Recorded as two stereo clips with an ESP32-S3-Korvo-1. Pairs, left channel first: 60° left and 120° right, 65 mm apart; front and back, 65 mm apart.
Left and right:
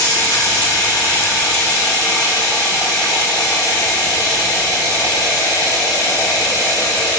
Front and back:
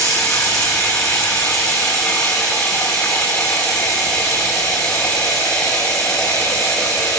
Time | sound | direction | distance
0.0 | running water | 80° left | 9 m